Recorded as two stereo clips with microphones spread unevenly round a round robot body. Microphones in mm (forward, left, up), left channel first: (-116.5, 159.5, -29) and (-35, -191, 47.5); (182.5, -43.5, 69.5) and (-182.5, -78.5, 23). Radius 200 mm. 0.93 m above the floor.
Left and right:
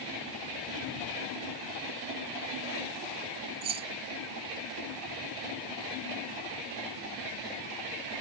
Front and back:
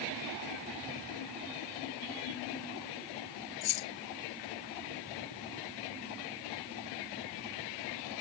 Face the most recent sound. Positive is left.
turn(degrees=-10)